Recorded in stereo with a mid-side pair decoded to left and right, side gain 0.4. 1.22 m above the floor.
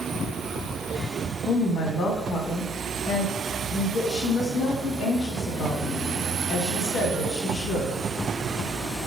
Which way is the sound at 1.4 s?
65° left.